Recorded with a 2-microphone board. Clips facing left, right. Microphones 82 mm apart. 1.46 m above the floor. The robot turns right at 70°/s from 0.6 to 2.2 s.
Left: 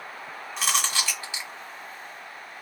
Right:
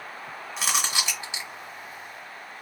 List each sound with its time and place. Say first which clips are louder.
0.6 s chewing: left 1 dB; 5° right (ahead or behind), 1.4 m; by 1.5 s 25° right (ahead or behind), 1.4 m